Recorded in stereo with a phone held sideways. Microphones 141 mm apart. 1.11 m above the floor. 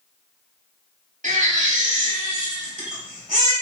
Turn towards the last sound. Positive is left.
turn(degrees=-60)  # may be behind; listen again after turning